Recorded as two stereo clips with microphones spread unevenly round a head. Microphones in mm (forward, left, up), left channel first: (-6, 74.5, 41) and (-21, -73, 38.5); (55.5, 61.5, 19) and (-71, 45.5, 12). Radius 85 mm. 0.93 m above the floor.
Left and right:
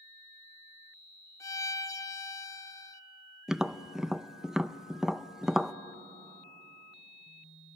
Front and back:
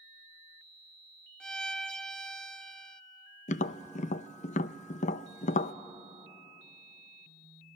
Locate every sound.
1.4 s a violin: 90° left, 0.6 m
3.5 s tapping: 10° right, 0.5 m